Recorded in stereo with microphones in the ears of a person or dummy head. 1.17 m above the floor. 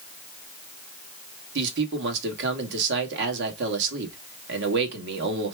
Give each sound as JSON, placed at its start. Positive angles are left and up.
{"t": 1.6, "sound": "a man speaking", "side_deg": -65, "distance_m": 1.3}